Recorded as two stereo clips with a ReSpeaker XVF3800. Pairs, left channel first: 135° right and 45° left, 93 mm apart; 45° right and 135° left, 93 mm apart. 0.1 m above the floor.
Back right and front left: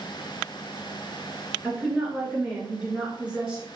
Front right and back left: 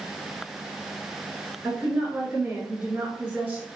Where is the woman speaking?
105° left, 1.6 m.